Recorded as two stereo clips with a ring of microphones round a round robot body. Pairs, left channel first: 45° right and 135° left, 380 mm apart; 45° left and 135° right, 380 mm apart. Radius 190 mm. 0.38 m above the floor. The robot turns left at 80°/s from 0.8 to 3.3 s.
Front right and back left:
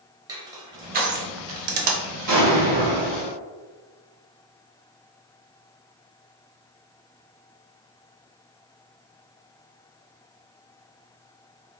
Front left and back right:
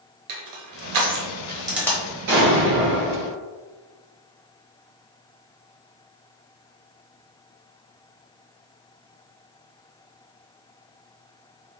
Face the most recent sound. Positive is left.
turn(degrees=95)